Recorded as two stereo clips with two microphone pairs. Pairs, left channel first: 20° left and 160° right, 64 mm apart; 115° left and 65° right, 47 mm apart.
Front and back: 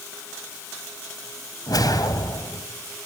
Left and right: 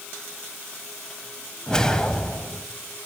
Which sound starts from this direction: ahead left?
A whoosh, at 1.7 s.